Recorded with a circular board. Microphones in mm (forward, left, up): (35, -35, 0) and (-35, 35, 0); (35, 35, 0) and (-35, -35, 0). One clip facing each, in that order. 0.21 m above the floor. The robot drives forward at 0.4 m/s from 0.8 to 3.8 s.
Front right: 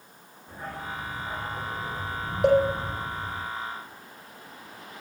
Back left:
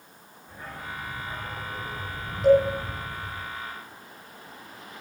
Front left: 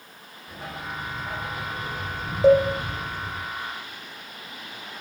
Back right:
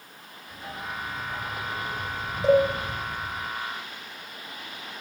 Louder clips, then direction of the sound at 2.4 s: Back left 2 dB, front left 3 dB; 15° right.